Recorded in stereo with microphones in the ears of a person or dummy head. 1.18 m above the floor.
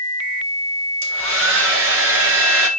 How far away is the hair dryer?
About 1.4 m.